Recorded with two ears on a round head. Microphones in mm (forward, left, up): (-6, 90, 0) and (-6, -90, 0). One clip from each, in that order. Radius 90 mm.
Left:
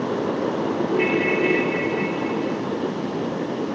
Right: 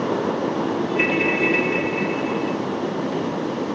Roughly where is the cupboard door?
I don't hear a cupboard door.